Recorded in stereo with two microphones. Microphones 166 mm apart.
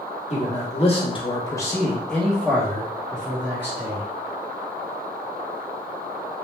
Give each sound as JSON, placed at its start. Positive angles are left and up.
{"t": 0.3, "sound": "a man speaking", "side_deg": 45, "distance_m": 1.0}